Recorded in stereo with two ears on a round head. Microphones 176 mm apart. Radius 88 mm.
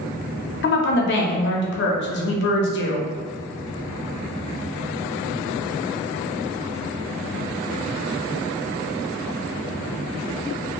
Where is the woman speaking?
55° left (ahead or behind), 0.7 m.